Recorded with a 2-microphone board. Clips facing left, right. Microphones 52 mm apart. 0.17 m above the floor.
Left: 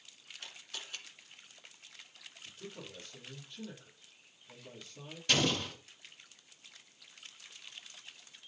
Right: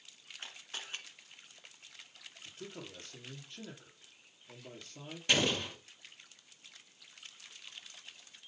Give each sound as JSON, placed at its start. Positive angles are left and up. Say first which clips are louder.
{"t": 0.4, "sound": "a camera shutter", "louder": "right 2 dB", "side_deg": -30, "distance_m": 1.7}
{"t": 2.5, "sound": "a man speaking", "louder": "right 1 dB", "side_deg": -55, "distance_m": 4.5}
{"t": 5.3, "sound": "an explosion", "louder": "even", "side_deg": -15, "distance_m": 2.0}